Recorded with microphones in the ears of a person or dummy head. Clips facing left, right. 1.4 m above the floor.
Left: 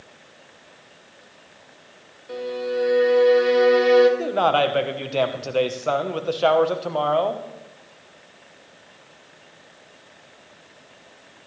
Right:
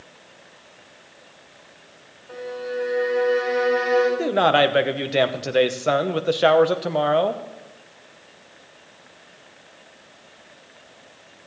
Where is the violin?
40° left (ahead or behind), 2.0 m.